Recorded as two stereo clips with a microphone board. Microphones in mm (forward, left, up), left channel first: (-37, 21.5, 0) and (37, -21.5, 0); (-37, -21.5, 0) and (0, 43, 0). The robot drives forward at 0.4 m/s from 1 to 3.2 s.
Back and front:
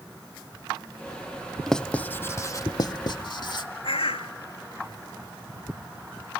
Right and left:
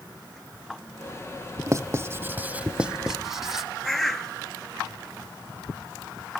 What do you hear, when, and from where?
1.7 s writing: 65° left, 0.6 m; by 3.7 s 145° left, 0.7 m
3.8 s a bird: 155° left, 0.7 m